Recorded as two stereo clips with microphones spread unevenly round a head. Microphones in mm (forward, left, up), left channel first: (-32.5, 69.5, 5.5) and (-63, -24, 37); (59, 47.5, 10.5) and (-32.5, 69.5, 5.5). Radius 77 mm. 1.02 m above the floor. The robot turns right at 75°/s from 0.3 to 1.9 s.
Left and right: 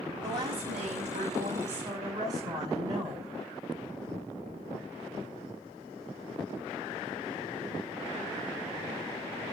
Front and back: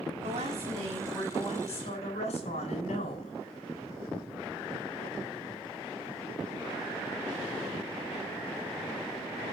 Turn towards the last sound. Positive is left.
turn(degrees=-40)